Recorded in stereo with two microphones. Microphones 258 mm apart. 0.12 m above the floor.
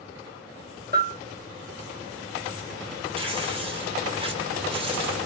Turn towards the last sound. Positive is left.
turn(degrees=-20)  # may be behind; listen again after turning